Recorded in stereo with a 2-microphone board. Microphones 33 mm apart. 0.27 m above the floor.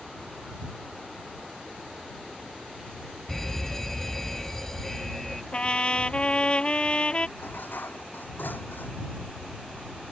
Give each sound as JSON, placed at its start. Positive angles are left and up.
{"t": 3.3, "sound": "a fire alarm", "side_deg": 15}
{"t": 5.5, "sound": "a trumpet", "side_deg": 35}
{"t": 7.4, "sound": "dishes clattering", "side_deg": 80}